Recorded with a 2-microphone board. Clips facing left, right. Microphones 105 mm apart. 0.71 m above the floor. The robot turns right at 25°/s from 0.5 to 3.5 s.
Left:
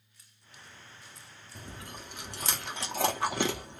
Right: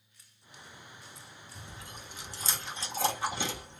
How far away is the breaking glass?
I don't hear breaking glass.